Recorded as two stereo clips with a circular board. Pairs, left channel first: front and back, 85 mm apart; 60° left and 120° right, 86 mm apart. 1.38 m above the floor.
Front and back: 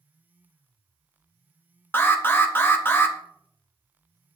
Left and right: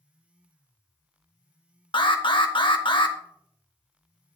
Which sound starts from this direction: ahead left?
An alarm, at 1.9 s.